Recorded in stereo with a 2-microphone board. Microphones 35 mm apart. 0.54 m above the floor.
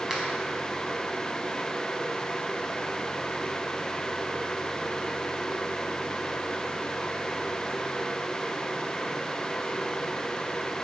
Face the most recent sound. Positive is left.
turn(degrees=-10)  # may be behind; listen again after turning